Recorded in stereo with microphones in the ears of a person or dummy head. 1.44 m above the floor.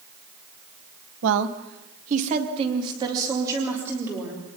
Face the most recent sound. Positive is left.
turn(degrees=-10)  # may be behind; listen again after turning